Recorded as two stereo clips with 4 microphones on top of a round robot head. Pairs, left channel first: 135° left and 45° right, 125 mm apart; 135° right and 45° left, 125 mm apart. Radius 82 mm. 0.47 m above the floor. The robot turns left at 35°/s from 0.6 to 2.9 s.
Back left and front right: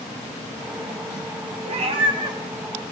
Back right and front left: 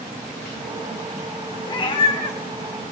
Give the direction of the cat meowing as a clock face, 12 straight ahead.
3 o'clock.